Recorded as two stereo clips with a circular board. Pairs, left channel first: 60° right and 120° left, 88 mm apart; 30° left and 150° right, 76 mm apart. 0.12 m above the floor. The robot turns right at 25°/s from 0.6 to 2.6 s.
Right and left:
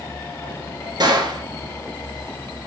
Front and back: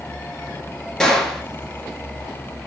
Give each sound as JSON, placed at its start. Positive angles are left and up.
{"t": 1.0, "sound": "a gunshot", "azimuth_deg": 110, "distance_m": 0.9}